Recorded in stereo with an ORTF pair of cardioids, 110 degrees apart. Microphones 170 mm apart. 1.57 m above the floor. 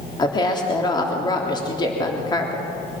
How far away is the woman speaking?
About 3.5 m.